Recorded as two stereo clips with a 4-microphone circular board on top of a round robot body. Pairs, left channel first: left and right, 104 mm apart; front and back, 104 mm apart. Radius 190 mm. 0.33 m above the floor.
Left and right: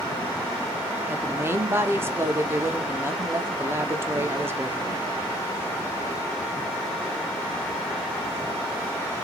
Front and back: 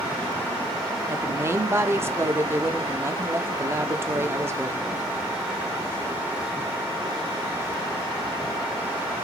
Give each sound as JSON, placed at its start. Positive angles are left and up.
{"t": 1.1, "sound": "a woman speaking", "azimuth_deg": -135, "distance_m": 1.1}